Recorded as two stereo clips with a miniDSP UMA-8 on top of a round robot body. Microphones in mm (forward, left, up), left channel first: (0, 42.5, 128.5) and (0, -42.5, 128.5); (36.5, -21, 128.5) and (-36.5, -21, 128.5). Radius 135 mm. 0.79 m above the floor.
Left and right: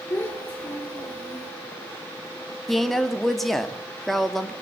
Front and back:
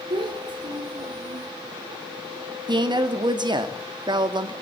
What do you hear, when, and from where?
0.1 s a child speaking: 165° left, 9 m
2.7 s a woman speaking: straight behind, 2.5 m